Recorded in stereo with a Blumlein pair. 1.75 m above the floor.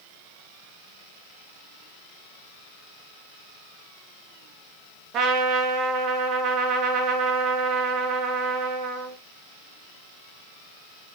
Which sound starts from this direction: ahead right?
A trumpet, at 5.1 s.